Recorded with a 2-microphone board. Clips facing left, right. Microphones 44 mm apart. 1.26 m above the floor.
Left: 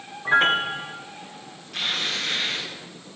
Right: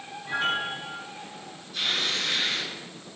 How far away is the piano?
About 0.8 m.